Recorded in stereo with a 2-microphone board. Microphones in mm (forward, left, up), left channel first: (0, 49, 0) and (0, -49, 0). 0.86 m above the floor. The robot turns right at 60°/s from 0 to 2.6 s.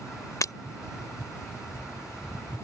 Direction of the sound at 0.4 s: 30° left (ahead or behind).